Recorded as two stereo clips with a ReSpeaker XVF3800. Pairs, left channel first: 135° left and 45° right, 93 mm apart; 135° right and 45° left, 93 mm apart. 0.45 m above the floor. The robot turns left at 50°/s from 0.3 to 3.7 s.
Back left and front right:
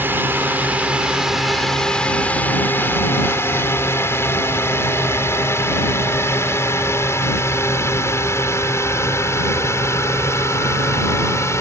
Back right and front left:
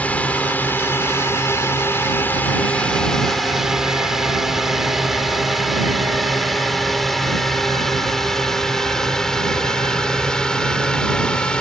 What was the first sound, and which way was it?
A drone, 80° right.